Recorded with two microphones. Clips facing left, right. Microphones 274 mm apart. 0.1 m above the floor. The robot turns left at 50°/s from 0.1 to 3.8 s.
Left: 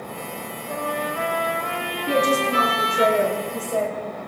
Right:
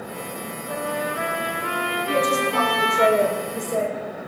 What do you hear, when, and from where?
0.7 s a trumpet: 5° left, 3 m; by 3.1 s 115° right, 3 m
2.1 s a woman speaking: 60° left, 6.5 m; by 4.2 s 25° right, 6.5 m